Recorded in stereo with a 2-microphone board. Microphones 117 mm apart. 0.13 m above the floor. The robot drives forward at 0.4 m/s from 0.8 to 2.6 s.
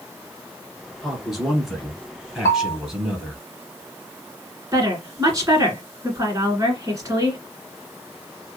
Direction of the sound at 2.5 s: 25° left (ahead or behind).